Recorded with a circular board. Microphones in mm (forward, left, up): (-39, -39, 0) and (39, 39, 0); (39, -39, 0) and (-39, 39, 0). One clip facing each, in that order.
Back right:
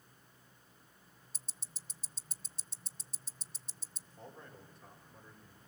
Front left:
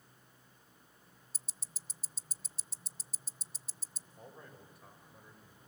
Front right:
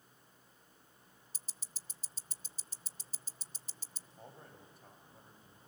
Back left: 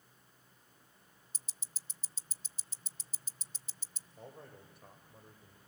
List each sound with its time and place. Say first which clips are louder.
1.3 s ticking: even, front right 1 dB; 45° right, 0.6 m
4.2 s a man speaking: back right 1 dB, back left 3 dB; 125° left, 4 m